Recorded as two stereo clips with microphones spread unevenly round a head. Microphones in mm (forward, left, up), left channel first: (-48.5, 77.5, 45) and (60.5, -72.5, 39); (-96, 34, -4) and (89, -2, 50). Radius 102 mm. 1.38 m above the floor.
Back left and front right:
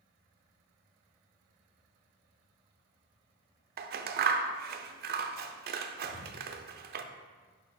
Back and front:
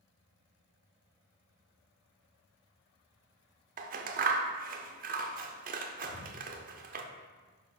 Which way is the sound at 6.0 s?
150° left.